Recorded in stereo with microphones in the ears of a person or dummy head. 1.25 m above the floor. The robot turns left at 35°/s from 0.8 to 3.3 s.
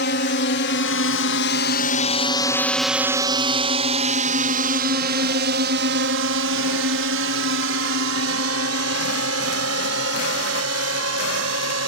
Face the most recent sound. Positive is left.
turn(degrees=-80)